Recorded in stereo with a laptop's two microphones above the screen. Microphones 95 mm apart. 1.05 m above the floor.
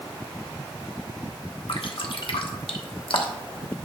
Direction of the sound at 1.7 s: 65° left (ahead or behind).